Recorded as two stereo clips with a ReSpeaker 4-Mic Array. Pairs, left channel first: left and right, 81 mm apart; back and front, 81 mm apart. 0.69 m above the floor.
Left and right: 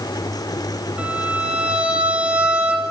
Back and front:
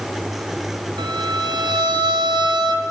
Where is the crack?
No crack in this recording.